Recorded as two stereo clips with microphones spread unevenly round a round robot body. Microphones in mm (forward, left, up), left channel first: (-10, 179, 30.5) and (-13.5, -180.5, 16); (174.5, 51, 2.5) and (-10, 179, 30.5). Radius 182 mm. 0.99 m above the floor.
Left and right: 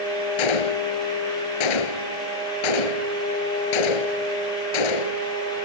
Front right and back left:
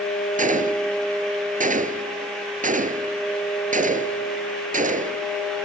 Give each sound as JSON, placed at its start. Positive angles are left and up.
{"t": 0.4, "sound": "a gunshot", "azimuth_deg": 90}